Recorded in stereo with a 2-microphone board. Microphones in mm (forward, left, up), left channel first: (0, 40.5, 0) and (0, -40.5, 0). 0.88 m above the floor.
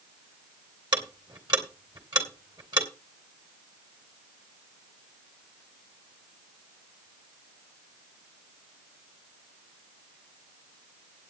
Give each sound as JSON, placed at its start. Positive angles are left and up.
{"t": 0.9, "sound": "ticking", "side_deg": -65, "distance_m": 2.5}